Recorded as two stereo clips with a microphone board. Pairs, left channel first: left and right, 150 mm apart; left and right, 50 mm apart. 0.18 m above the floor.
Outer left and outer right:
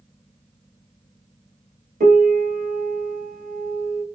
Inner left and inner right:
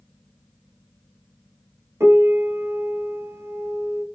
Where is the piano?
75° right (ahead or behind), 0.7 m.